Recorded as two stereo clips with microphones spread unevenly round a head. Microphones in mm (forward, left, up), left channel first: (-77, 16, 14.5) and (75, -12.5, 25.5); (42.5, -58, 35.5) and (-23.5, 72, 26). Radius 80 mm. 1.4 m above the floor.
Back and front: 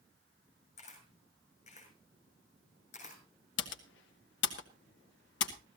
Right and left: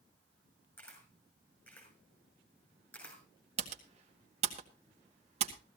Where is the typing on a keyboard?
165° left, 1.8 m.